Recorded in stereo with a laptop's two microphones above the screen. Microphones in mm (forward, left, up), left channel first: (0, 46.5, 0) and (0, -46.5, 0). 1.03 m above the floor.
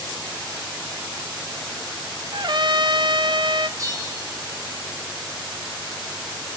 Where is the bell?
35° right (ahead or behind), 4 m.